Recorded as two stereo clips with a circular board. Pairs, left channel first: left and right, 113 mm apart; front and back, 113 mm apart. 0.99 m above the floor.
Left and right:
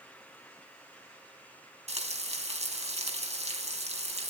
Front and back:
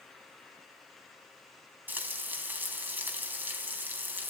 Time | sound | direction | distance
1.9 | frying | 110° right | 3.5 m